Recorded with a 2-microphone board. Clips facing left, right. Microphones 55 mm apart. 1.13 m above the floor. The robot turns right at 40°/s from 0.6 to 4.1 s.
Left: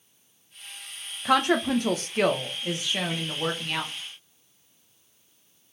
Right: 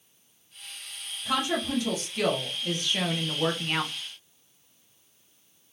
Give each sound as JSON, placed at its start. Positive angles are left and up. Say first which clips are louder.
{"t": 1.2, "sound": "a woman speaking", "louder": "left 6 dB", "azimuth_deg": 100, "distance_m": 0.6}